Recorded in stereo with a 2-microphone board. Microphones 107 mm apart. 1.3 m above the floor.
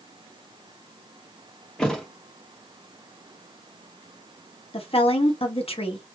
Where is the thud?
5° left (ahead or behind), 0.9 m.